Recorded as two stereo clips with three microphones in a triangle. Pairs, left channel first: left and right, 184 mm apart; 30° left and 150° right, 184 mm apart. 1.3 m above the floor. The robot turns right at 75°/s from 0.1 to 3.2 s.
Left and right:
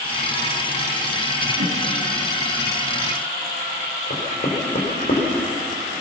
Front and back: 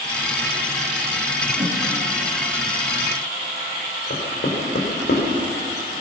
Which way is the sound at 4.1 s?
55° left.